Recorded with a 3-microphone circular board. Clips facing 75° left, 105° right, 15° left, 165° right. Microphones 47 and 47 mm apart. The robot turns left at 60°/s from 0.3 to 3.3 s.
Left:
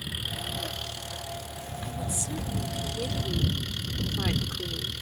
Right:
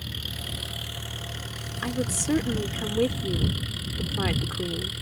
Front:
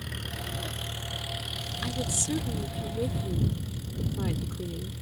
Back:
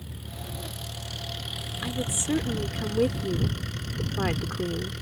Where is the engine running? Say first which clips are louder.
Left 1 dB, front 4 dB; 5° right; by 5.0 s 175° left.